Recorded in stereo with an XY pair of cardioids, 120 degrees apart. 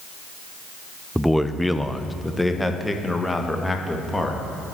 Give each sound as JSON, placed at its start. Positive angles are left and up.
{"t": 1.1, "sound": "a man speaking", "azimuth_deg": 0, "distance_m": 0.7}